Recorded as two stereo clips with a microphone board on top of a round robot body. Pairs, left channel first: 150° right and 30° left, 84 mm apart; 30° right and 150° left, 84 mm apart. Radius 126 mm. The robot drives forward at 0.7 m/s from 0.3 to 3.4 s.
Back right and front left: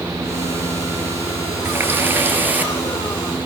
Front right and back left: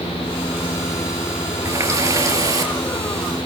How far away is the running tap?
About 5.5 m.